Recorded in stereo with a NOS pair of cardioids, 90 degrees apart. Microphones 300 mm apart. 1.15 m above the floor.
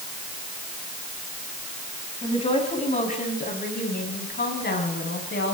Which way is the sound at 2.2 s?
20° left.